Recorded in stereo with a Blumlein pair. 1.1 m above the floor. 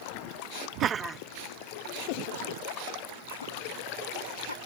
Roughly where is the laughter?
Ahead right.